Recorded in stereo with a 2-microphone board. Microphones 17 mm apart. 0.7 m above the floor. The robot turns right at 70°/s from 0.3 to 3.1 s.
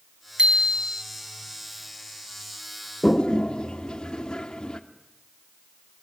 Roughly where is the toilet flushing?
Left.